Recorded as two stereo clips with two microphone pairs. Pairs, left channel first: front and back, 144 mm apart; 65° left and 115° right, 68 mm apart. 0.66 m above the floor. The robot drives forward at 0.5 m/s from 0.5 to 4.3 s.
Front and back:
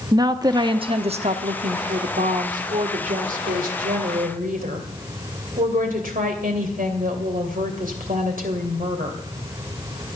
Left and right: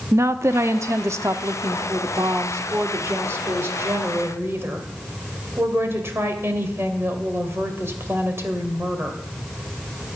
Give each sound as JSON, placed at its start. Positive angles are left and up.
{"t": 0.1, "sound": "a woman speaking", "azimuth_deg": -135, "distance_m": 0.7}